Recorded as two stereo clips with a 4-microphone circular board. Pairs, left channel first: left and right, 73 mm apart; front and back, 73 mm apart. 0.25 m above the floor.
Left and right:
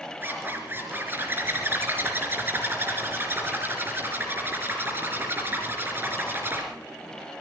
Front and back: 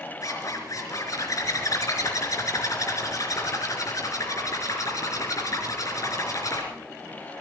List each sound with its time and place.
0.2 s a zipper: 30° right, 3.5 m